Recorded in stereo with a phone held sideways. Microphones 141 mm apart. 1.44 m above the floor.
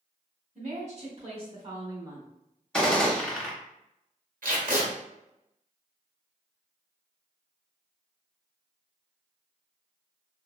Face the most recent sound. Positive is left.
turn(degrees=-75)  # may be behind; listen again after turning